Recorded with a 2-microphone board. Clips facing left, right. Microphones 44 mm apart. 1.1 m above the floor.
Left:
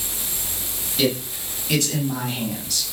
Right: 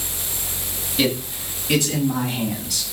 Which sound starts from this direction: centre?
A man speaking, at 1.0 s.